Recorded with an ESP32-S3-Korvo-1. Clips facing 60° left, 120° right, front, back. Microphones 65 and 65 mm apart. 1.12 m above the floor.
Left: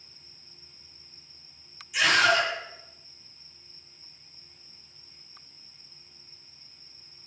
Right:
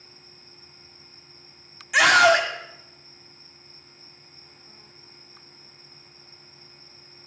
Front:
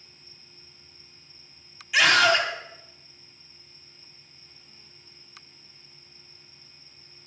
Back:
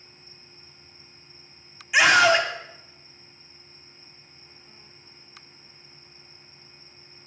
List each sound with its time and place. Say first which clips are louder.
1.9 s a scream: right 6 dB, back 3 dB; 110° right, 3 m